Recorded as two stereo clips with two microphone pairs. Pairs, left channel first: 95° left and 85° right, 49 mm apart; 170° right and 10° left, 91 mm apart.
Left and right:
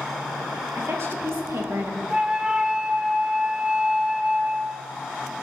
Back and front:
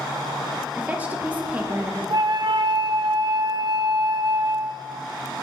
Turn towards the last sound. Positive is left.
turn(degrees=-10)